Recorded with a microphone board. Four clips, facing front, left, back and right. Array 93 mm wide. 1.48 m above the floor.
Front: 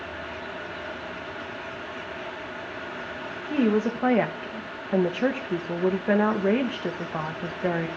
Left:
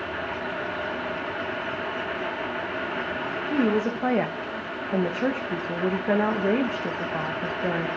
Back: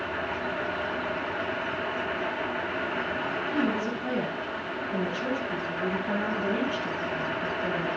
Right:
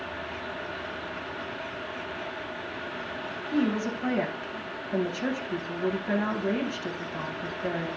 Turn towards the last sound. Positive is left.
turn(degrees=30)